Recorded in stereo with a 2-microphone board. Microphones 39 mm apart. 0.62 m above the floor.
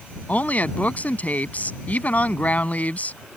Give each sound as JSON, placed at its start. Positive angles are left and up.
{"t": 0.3, "sound": "a woman speaking", "side_deg": 40}